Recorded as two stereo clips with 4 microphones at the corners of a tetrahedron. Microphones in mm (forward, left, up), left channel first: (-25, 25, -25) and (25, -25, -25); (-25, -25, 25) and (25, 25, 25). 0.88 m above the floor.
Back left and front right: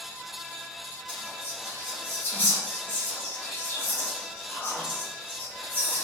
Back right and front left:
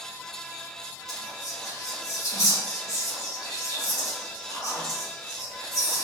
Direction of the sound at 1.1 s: 165° right.